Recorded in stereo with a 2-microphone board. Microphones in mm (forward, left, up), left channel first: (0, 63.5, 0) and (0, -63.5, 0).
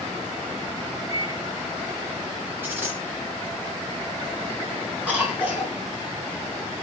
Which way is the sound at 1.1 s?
30° right (ahead or behind).